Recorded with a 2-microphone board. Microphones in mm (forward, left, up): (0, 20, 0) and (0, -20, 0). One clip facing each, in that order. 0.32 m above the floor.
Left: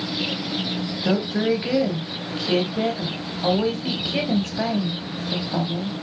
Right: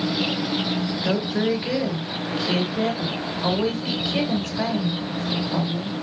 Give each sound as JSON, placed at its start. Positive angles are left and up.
{"t": 1.0, "sound": "a woman speaking", "side_deg": 15, "distance_m": 1.8}